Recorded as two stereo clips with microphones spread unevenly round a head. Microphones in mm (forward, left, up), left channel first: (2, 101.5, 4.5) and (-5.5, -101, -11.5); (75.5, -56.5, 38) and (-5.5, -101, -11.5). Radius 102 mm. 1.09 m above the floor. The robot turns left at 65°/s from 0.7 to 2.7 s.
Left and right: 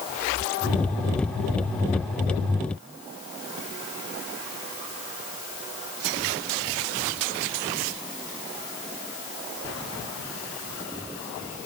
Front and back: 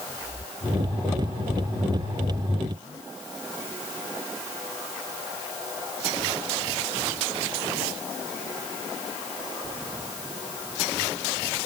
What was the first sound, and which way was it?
Only background noise.